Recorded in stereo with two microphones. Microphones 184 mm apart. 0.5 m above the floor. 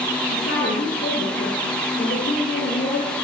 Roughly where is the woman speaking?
Left.